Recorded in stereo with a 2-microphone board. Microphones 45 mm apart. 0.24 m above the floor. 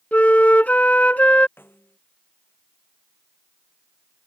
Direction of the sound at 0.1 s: 35° left (ahead or behind).